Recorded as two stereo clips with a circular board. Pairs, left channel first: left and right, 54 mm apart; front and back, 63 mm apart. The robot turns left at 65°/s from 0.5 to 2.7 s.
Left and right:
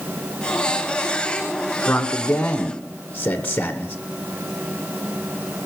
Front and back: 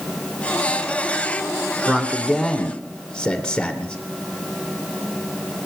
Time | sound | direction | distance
1.9 | a man speaking | 120° left | 1.2 m